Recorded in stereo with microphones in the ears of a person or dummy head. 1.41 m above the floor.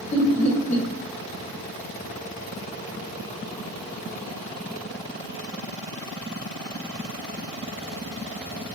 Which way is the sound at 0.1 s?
45° left (ahead or behind).